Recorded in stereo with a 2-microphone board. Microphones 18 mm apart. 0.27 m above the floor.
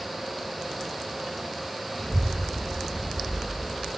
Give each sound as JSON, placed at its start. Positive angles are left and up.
{"t": 2.0, "sound": "a child speaking", "side_deg": 30, "distance_m": 1.5}